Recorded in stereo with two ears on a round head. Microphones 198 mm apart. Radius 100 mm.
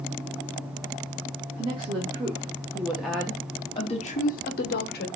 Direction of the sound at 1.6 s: 20° right (ahead or behind).